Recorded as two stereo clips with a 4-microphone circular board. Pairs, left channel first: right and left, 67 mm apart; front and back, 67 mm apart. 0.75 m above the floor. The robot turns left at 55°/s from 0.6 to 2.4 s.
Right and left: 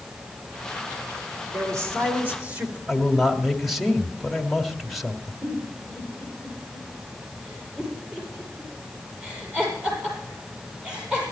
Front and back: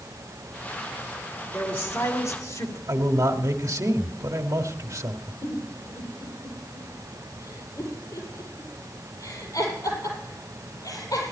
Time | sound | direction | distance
1.5 | a man speaking | 70° left | 3 m
2.9 | a man speaking | straight behind | 1.5 m
5.4 | a giggle | 15° left | 5.5 m